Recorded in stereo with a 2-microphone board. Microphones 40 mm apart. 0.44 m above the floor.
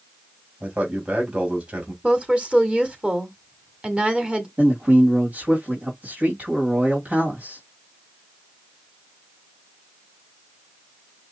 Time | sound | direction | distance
0.6 | a man speaking | 35° right (ahead or behind) | 3 m
2.0 | a woman speaking | 25° right (ahead or behind) | 1.6 m
4.6 | a man speaking | 45° right (ahead or behind) | 2.5 m